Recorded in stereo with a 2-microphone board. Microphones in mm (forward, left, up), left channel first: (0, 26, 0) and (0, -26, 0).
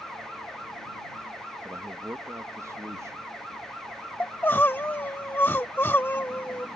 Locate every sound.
1.6 s a man speaking: 70° right (ahead or behind)
4.2 s crying: 40° left (ahead or behind)